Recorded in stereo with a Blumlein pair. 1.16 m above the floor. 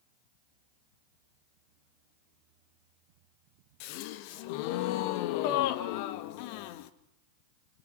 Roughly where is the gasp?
Ahead left.